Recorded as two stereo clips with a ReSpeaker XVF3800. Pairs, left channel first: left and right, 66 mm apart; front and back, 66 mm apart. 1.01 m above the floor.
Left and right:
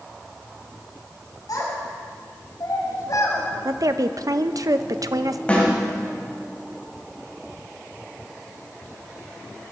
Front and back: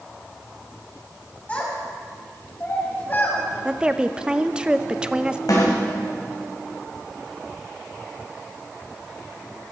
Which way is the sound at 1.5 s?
70° left.